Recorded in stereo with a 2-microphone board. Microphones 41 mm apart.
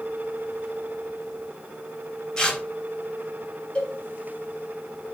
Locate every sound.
2.4 s tearing paper: 15° left (ahead or behind), 4 m
3.8 s a cowbell: 25° left (ahead or behind), 6.5 m